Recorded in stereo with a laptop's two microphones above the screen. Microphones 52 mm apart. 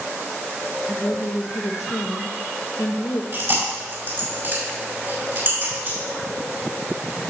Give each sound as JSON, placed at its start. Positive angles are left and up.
{"t": 0.9, "sound": "a woman speaking", "side_deg": 80, "distance_m": 0.7}
{"t": 3.3, "sound": "chewing", "side_deg": -55, "distance_m": 5.0}